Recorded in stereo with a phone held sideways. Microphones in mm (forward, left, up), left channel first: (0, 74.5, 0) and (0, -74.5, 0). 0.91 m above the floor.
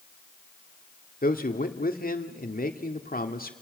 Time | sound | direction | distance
1.2 | a man speaking | 75° left (ahead or behind) | 2 m